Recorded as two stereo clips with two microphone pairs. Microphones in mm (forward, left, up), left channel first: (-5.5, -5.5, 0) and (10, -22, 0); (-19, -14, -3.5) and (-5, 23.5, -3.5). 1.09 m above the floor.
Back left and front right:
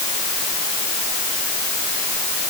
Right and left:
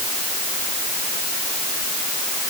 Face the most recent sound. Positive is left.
No sound to turn to.